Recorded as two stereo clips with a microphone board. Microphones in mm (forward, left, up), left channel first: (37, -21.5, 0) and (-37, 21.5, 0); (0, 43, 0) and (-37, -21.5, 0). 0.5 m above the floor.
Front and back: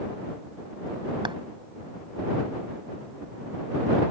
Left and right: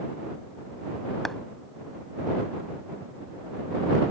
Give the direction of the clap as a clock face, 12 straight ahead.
7 o'clock.